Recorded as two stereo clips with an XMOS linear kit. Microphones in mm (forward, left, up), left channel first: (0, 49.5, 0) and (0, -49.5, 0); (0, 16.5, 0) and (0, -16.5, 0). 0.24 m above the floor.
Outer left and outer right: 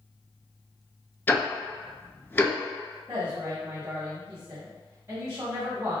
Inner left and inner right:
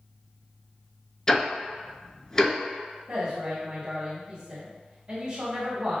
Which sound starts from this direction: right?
A woman speaking, at 3.1 s.